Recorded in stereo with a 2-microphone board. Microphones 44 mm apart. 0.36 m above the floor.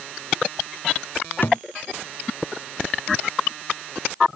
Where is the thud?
50° left (ahead or behind).